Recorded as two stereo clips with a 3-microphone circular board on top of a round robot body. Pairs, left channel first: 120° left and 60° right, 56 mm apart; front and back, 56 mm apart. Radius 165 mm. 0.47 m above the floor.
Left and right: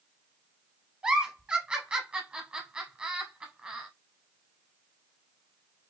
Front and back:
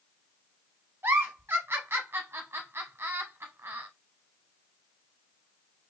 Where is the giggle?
130° right, 0.6 m.